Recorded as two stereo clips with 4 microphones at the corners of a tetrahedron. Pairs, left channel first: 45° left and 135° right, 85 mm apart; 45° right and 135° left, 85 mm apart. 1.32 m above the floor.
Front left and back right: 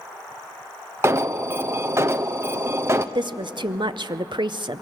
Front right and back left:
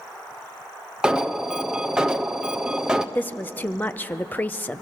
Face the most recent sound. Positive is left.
turn(degrees=-115)